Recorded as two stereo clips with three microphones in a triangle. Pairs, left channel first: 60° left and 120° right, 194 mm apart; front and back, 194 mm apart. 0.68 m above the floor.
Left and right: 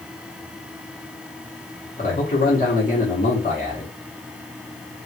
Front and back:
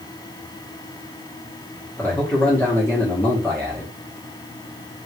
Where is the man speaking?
75° left, 1.3 m.